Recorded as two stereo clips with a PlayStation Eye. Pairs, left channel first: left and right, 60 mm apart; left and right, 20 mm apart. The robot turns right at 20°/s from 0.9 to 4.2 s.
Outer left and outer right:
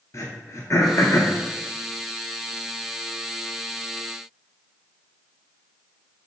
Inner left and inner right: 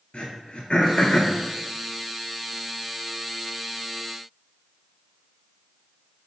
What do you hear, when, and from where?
0.1 s throat clearing: 60° left (ahead or behind), 0.7 m